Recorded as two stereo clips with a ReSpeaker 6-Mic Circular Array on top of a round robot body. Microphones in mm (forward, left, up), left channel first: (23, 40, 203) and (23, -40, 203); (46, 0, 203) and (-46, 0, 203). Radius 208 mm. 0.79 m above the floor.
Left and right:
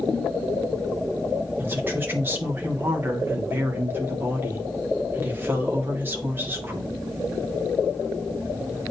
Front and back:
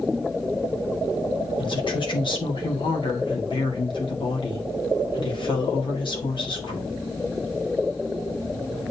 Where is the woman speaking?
25° right, 2.5 m.